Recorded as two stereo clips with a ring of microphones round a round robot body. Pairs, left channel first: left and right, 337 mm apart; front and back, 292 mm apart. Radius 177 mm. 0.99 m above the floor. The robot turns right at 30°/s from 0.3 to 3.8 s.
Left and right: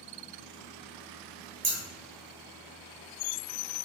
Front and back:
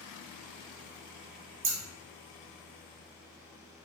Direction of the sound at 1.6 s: 140° right.